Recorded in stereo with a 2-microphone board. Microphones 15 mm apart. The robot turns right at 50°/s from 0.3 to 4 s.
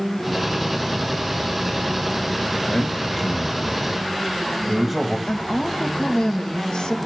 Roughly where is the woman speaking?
Left.